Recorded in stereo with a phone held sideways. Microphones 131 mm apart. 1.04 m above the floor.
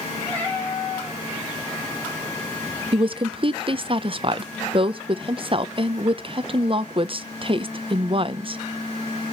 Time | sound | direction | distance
0.3 | a cat meowing | 10° left (ahead or behind) | 4.5 m
2.9 | a woman speaking | 40° right (ahead or behind) | 0.6 m